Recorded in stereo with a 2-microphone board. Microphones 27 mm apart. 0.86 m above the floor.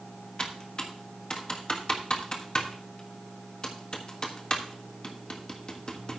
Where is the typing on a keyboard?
35° left (ahead or behind), 1.4 m.